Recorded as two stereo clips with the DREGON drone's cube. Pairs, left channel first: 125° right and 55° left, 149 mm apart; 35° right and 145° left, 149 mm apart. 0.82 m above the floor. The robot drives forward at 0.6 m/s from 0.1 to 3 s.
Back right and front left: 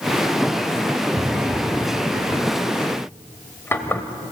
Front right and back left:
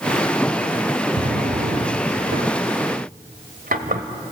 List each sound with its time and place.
1.2 s a drawer: 125° left, 0.6 m; by 4.0 s 160° left, 1.5 m